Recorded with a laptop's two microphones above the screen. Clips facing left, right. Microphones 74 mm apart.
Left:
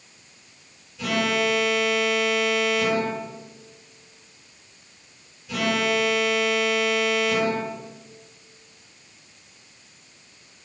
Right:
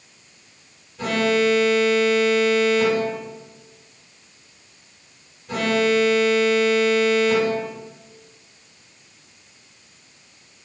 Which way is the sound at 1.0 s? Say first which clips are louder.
Right 4 dB; 45° right (ahead or behind).